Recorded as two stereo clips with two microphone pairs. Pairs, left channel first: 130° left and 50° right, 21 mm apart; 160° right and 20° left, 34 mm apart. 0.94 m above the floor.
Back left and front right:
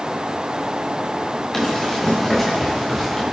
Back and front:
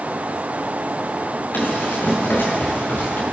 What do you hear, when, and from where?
1.5 s running footsteps: 155° right, 9.5 m; by 3.2 s 150° right, 8.5 m